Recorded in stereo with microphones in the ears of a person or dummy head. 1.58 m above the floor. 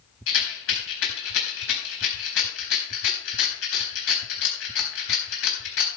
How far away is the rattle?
About 4 m.